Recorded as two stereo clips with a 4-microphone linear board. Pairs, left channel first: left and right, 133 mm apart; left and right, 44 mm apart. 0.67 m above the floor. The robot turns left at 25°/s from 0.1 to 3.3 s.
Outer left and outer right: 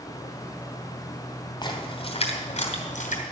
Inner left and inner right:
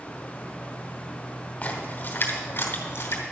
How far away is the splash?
About 2.5 m.